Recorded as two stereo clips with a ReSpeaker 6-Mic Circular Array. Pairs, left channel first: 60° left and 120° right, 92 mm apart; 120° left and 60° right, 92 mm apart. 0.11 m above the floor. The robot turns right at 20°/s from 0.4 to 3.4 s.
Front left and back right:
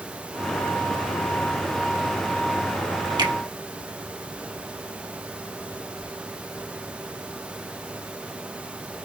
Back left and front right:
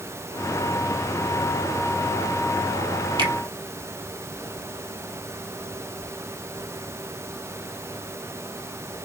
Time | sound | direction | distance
3.2 | a finger snap | 90° right | 3 m